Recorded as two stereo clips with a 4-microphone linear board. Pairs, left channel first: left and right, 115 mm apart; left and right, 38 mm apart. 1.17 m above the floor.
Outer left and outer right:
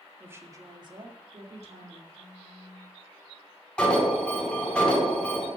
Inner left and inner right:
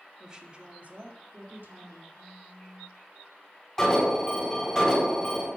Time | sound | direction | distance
0.2 | a woman speaking | 15° right (ahead or behind) | 1.7 m
2.1 | a phone buzzing | 35° left (ahead or behind) | 1.8 m
3.8 | an alarm | 10° left (ahead or behind) | 4.5 m